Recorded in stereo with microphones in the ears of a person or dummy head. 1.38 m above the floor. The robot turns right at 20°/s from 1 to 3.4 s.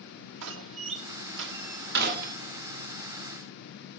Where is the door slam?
70° right (ahead or behind), 0.8 m; by 2.4 s 45° right (ahead or behind), 0.8 m.